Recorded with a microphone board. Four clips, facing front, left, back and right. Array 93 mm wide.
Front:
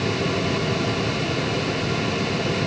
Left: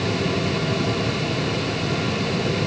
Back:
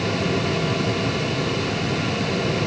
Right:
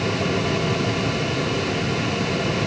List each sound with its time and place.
Only background noise.